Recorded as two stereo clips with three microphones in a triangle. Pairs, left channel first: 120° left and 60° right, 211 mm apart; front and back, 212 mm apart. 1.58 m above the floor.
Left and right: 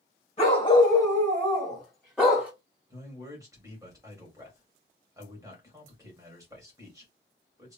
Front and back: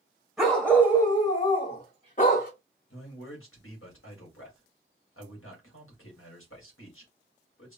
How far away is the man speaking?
About 1.6 m.